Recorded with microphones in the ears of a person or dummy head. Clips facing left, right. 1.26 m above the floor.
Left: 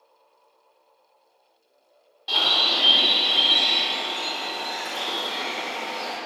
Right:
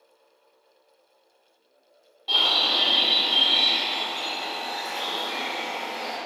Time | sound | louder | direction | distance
2.3 | a bird | left 1 dB | 10° left (ahead or behind) | 1.2 m